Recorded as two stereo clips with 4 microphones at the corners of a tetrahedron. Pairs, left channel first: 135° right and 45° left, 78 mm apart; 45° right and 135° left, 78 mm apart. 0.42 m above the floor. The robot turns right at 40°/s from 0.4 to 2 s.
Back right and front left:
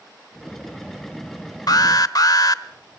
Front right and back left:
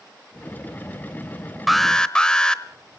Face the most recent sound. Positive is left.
turn(degrees=-125)